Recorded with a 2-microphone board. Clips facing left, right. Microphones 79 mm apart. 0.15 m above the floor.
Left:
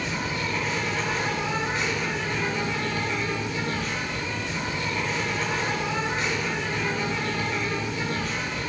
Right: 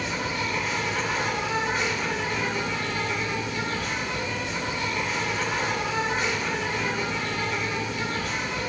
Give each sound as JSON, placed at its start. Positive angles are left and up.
{"t": 0.0, "sound": "an insect", "side_deg": 0, "distance_m": 1.9}